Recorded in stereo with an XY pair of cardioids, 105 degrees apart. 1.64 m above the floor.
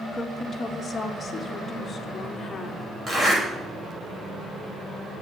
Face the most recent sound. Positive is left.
turn(degrees=-15)